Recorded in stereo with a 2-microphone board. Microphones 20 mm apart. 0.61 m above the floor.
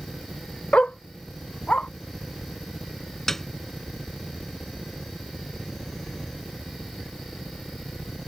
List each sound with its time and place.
0.7 s a dog barking: 85° left
3.3 s a piano: 20° left (ahead or behind)